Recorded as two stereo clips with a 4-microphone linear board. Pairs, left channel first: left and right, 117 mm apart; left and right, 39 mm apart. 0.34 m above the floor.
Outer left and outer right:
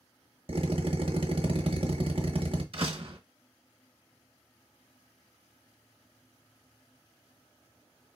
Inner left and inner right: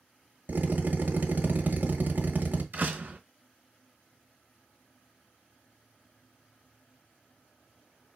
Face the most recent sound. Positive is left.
turn(degrees=-50)  # may be behind; listen again after turning